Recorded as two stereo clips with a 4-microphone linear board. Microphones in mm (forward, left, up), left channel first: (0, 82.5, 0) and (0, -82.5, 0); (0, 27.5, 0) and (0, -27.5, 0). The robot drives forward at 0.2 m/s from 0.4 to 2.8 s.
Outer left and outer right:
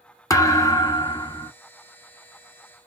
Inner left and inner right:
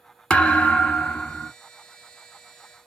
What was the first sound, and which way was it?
A thud, 20° left (ahead or behind).